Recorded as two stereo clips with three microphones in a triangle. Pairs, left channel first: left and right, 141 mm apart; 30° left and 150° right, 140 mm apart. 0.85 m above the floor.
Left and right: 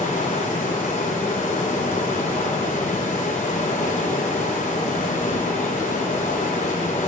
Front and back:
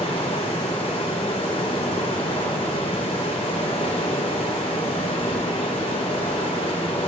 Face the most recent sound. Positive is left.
turn(degrees=75)